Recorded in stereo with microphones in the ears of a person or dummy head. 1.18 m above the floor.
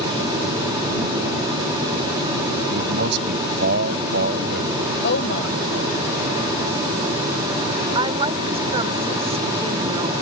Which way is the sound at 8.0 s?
35° right (ahead or behind).